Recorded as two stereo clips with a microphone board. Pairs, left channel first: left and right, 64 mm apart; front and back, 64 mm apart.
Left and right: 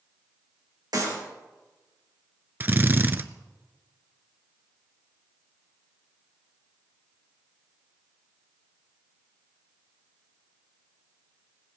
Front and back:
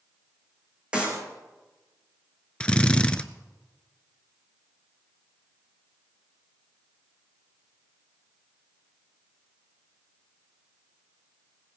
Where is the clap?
105° right, 4.5 m.